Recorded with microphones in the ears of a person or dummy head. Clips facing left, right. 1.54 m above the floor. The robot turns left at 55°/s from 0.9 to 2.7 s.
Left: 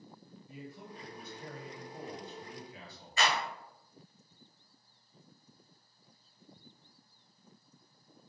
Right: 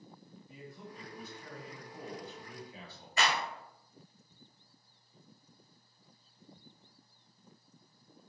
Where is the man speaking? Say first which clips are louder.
Left 2 dB; 70° left, 1.8 m; by 3.2 s 30° right, 1.8 m.